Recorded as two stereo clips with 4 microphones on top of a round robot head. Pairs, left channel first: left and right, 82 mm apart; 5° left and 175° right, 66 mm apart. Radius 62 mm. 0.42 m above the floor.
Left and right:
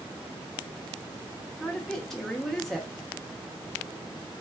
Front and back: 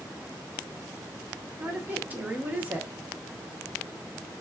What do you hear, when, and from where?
1.6 s a woman speaking: 175° left, 0.9 m